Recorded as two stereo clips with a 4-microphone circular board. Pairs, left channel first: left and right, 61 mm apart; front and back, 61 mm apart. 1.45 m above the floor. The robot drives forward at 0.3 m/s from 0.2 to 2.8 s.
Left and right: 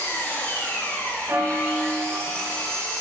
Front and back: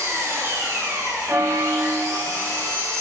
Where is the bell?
140° right, 0.6 m; by 2.6 s 160° right, 0.9 m.